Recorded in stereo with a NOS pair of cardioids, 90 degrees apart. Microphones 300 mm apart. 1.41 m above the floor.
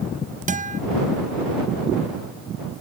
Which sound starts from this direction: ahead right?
A guitar, at 0.5 s.